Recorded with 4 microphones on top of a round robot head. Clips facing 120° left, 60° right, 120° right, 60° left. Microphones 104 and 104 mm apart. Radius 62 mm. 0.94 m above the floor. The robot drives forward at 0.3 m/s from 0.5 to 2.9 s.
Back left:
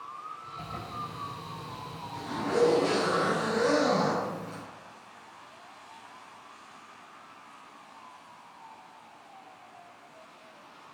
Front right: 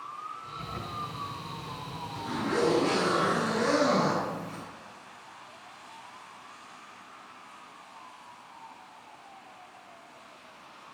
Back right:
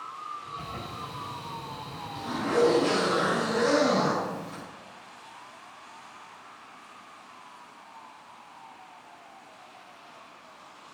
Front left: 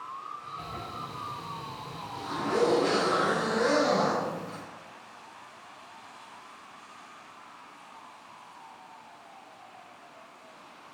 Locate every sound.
0.6 s a zipper: 155° left, 6 m; by 4.6 s 160° left, 6.5 m